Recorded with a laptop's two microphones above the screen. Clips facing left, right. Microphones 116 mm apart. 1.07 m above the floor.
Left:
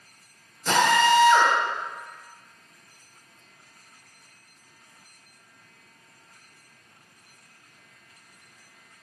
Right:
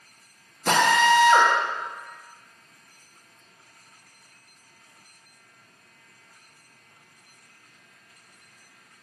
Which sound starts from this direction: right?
A drill, at 0.7 s.